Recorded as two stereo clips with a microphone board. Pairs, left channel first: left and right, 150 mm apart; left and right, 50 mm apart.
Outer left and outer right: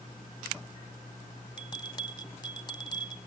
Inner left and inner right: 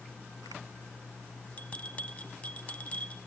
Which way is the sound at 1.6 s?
30° left (ahead or behind).